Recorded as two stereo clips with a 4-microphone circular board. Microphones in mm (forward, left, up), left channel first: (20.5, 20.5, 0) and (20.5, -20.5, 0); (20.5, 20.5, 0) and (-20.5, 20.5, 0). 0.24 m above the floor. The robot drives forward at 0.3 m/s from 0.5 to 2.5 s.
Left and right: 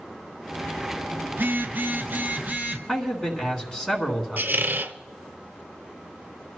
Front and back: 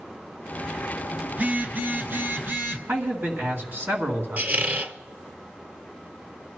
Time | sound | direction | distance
1.3 | a phone buzzing | 125° right | 0.9 m
2.9 | a man speaking | 165° left | 2.5 m
4.4 | a squeak | 130° right | 0.7 m